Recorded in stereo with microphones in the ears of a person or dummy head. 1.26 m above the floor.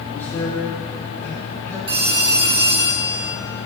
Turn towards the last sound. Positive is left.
turn(degrees=-25)  # may be behind; listen again after turning